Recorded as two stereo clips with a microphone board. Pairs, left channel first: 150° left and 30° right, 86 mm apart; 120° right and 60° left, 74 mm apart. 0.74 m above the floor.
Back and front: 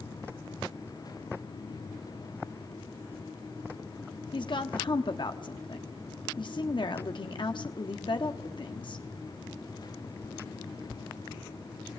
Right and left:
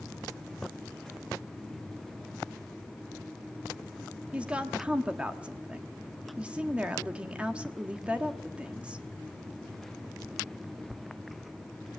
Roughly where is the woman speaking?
Behind left.